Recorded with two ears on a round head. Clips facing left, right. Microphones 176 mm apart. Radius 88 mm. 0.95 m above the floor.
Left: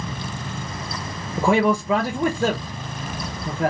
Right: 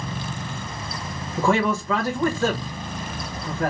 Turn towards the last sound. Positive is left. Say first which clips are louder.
# left 3 dB
turn(degrees=10)  # may be behind; listen again after turning